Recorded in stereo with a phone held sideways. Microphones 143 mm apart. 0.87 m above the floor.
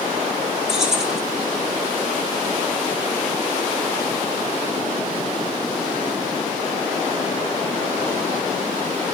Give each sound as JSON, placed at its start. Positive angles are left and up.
{"t": 0.7, "sound": "keys jangling", "side_deg": -5, "distance_m": 1.9}